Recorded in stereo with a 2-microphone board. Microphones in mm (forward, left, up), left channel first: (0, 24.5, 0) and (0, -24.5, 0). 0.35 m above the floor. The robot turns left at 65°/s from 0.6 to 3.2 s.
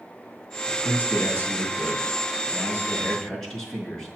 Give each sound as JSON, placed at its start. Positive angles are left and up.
{"t": 0.7, "sound": "a man speaking", "azimuth_deg": 175, "distance_m": 4.5}